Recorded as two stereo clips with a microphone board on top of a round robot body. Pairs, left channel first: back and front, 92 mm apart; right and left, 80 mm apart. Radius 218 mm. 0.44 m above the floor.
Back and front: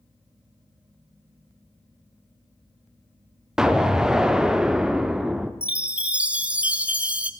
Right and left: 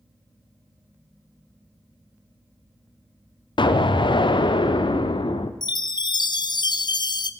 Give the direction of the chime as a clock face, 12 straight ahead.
2 o'clock.